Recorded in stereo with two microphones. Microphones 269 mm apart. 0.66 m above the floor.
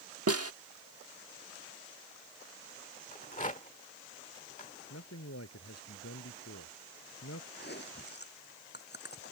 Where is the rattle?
30° left (ahead or behind).